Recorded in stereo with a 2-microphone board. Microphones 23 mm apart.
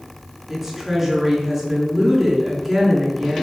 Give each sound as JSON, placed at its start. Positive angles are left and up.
{"t": 0.5, "sound": "a woman speaking", "side_deg": -20, "distance_m": 7.0}